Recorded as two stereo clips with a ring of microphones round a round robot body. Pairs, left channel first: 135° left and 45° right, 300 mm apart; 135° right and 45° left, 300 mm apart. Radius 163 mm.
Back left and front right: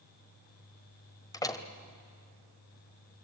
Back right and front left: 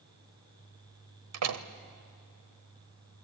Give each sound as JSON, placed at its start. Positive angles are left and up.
{"t": 1.3, "sound": "a door slam", "azimuth_deg": 60, "distance_m": 1.4}